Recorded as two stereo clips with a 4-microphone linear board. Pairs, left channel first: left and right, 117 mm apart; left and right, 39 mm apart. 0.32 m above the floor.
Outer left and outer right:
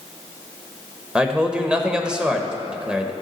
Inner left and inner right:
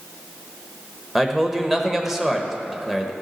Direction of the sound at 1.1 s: 10° right (ahead or behind).